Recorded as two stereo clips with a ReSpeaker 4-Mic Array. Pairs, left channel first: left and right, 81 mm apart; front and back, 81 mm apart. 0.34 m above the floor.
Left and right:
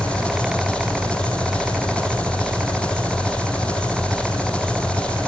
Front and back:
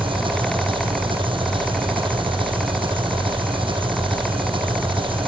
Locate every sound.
0.0 s an engine running: 165° left, 4 m